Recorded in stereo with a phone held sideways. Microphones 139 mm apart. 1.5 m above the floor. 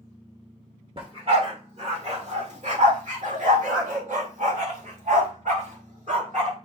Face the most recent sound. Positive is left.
turn(degrees=-55)  # may be behind; listen again after turning